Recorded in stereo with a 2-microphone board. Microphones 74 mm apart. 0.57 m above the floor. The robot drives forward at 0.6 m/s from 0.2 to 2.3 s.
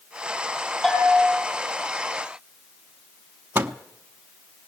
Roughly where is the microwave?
Right.